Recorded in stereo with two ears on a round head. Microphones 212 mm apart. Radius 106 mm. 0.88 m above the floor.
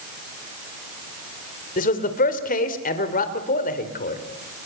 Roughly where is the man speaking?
Left.